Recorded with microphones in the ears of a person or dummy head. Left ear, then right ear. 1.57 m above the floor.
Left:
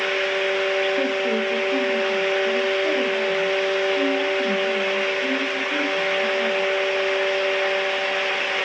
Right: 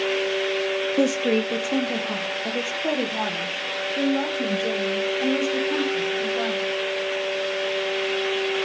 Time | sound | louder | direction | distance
1.0 | a woman speaking | even | 70° right (ahead or behind) | 0.6 m